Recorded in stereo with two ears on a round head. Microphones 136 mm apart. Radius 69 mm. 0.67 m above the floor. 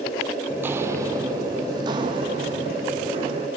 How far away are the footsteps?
About 1.0 m.